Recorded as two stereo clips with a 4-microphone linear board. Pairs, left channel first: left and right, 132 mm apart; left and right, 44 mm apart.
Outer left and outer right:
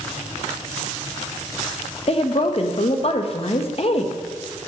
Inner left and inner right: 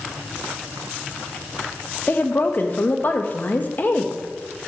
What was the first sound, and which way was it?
A woman speaking, 45° left (ahead or behind).